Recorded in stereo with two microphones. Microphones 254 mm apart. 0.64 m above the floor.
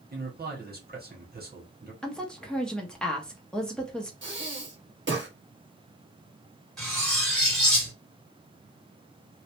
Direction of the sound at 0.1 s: 35° right (ahead or behind).